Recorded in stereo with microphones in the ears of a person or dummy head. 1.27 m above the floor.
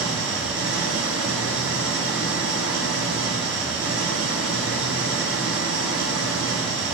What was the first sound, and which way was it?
An engine running, 70° right (ahead or behind).